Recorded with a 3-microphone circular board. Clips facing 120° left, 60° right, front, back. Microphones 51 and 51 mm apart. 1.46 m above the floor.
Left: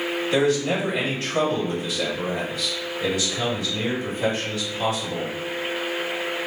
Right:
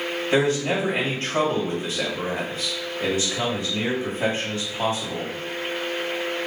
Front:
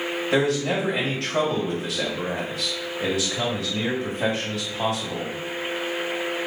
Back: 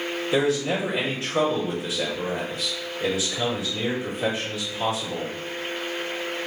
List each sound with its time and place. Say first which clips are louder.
0.3 s a man speaking: even, front 1 dB; 5° right, 2.0 m